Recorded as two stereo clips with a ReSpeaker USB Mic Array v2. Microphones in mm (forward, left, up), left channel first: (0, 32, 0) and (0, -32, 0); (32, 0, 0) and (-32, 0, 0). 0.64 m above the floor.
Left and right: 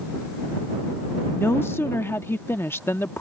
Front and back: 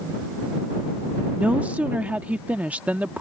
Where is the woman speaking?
120° left.